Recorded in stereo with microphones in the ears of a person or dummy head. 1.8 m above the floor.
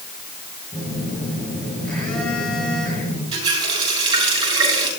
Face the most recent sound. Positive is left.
turn(degrees=-25)  # may be behind; listen again after turning